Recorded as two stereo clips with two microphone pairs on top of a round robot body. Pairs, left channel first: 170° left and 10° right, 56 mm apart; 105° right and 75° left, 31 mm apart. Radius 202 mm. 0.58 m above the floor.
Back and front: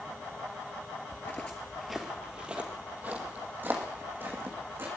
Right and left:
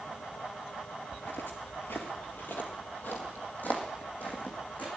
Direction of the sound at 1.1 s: 140° right.